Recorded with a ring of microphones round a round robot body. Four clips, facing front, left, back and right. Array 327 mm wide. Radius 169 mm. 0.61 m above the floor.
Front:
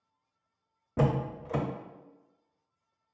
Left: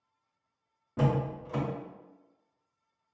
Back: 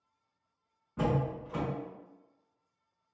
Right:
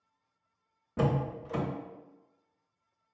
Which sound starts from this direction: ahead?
A door slam, at 1.0 s.